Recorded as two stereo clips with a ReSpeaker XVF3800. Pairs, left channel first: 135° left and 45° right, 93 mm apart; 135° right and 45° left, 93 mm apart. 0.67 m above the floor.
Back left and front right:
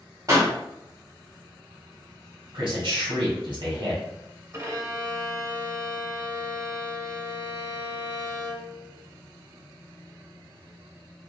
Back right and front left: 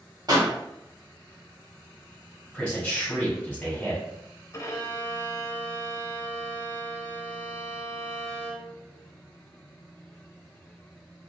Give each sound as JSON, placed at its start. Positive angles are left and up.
{"t": 0.3, "sound": "a pop", "azimuth_deg": 5, "distance_m": 1.4}
{"t": 2.5, "sound": "a man speaking", "azimuth_deg": -60, "distance_m": 1.5}
{"t": 4.5, "sound": "a violin", "azimuth_deg": -90, "distance_m": 0.5}